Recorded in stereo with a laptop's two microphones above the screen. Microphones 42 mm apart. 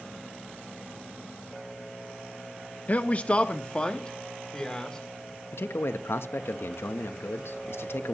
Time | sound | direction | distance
2.9 | a man speaking | 40° left (ahead or behind) | 0.8 m
5.5 | a man speaking | 70° left (ahead or behind) | 0.9 m